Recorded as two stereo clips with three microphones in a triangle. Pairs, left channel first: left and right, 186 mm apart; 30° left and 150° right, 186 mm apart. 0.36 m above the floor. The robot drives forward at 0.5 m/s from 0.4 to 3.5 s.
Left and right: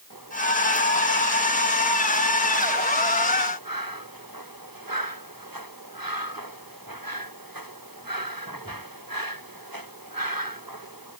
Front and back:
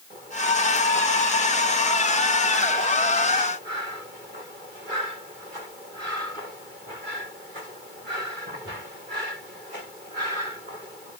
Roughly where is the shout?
I don't hear a shout.